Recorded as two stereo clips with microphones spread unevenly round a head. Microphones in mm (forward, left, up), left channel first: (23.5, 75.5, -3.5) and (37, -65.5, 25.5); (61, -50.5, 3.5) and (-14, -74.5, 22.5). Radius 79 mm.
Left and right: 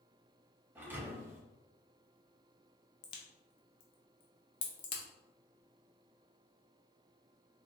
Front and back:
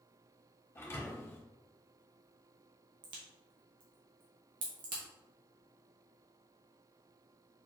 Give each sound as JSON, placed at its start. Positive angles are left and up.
{"t": 0.8, "sound": "a thud", "azimuth_deg": -40, "distance_m": 0.9}
{"t": 3.0, "sound": "a crack", "azimuth_deg": 160, "distance_m": 0.5}